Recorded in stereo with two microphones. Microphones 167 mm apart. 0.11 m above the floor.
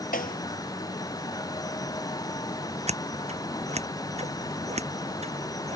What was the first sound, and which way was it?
A snare drum, 60° left (ahead or behind).